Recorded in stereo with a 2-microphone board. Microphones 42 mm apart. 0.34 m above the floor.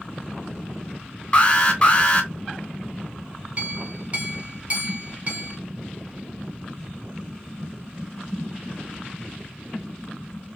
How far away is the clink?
About 2 m.